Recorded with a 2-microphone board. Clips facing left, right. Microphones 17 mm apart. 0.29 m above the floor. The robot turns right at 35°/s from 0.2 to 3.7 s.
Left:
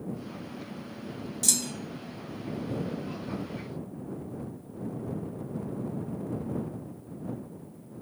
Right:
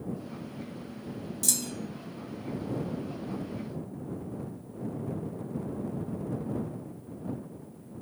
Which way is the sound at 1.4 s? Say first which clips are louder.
Left 2 dB; 25° left (ahead or behind).